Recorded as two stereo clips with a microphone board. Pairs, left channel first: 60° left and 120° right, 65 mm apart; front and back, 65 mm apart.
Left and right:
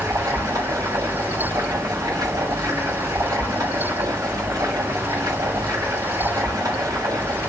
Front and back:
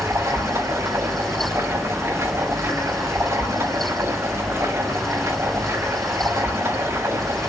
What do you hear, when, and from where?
0.0 s running water: 135° right, 4.5 m